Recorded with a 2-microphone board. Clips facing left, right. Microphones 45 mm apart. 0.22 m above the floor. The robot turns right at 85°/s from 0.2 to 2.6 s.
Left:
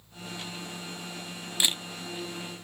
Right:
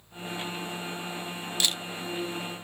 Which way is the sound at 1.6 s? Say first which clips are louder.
Left 1 dB; 20° left (ahead or behind).